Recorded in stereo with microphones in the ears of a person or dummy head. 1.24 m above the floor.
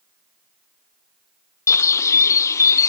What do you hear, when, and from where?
1.7 s a bird: 15° left (ahead or behind), 0.8 m